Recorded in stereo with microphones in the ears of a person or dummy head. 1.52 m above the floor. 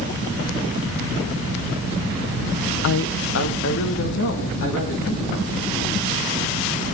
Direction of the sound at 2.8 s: 70° left (ahead or behind).